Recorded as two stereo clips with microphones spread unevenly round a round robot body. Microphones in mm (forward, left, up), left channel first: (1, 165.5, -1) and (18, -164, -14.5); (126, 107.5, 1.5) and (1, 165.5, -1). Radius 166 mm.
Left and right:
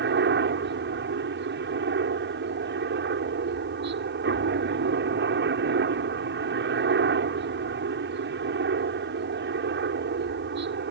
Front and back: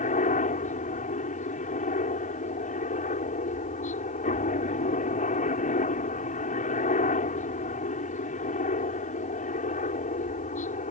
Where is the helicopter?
35° right.